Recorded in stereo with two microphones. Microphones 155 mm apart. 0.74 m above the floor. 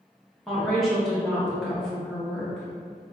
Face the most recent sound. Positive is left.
turn(degrees=0)  # may be behind; listen again after turning